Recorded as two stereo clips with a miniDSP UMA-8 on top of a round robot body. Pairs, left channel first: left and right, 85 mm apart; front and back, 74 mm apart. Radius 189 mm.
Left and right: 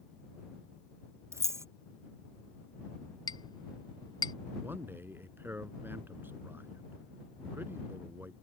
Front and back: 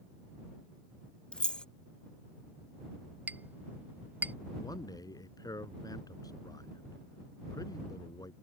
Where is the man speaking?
25° right.